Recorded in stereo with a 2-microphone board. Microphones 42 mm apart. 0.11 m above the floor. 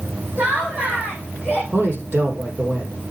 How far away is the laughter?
About 6.5 m.